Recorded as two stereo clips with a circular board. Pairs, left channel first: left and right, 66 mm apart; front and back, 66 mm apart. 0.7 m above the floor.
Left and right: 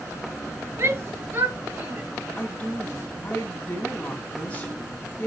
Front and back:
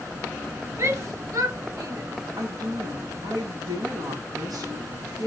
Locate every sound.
0.8 s a shout: 140° right, 2.5 m; by 2.0 s 145° right, 3.5 m
2.4 s a woman speaking: 165° left, 4.5 m